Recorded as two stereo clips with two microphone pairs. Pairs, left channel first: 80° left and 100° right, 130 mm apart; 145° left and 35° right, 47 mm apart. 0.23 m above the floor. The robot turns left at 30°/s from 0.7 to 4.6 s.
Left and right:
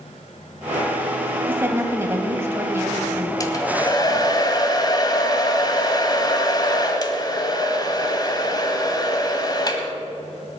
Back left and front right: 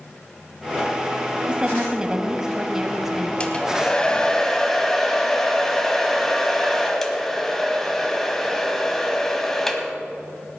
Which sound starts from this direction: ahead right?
A woman speaking, at 1.5 s.